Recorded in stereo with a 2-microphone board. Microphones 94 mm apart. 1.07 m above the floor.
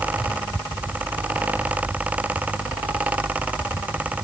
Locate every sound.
Only background noise.